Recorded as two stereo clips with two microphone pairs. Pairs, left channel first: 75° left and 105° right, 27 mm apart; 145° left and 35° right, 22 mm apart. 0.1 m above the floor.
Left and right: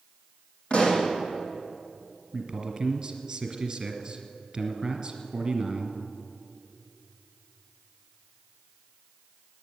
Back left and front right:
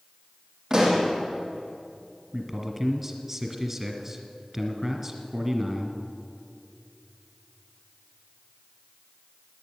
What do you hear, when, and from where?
0.7 s a pop: 30° left, 5 m
2.3 s a man speaking: 85° right, 1.5 m